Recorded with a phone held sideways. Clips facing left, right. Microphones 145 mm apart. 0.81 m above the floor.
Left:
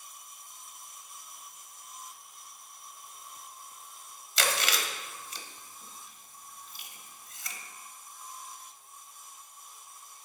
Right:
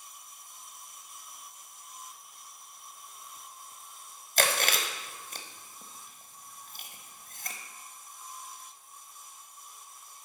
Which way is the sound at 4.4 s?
50° right (ahead or behind).